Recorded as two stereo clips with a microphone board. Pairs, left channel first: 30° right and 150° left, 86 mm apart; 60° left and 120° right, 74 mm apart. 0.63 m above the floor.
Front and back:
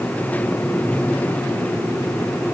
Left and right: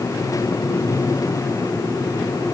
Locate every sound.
Only background noise.